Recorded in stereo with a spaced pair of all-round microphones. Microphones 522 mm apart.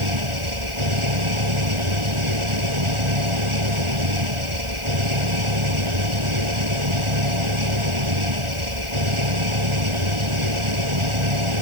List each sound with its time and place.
0.0 s an engine running: 60° right (ahead or behind)